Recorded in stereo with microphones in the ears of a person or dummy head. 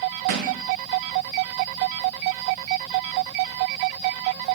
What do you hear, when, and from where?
0.3 s a thud: 75° right (ahead or behind), 3 m